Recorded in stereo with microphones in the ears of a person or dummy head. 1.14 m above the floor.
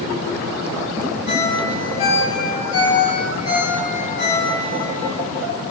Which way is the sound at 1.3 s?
55° left (ahead or behind).